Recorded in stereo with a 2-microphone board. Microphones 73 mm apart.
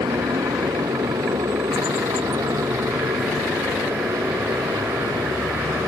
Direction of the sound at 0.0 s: 80° right.